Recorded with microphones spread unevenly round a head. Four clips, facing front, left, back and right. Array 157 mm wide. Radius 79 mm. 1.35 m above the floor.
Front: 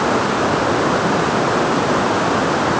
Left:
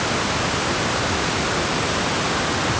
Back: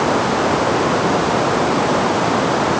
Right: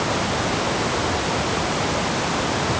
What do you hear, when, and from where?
Only background noise.